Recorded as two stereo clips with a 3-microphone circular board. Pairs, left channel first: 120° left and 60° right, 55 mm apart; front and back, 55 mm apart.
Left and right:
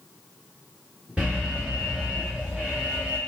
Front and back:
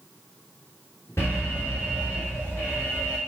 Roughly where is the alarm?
Ahead.